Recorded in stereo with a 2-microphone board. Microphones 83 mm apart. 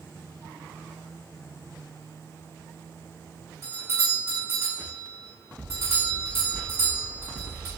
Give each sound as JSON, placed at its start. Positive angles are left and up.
{"t": 3.6, "sound": "a doorbell", "side_deg": -35, "distance_m": 1.6}